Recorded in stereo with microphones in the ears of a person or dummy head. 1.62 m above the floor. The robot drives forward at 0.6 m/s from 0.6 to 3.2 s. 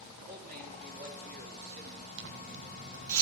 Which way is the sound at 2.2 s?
60° right (ahead or behind).